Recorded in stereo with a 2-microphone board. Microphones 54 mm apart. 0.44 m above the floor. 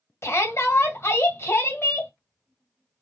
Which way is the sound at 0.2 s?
50° left (ahead or behind).